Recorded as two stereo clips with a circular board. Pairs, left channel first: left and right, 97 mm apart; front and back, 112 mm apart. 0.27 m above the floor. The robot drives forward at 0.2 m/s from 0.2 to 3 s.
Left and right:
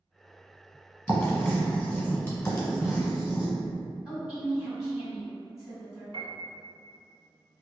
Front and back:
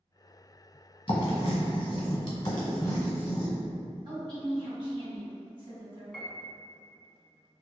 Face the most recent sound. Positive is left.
turn(degrees=-80)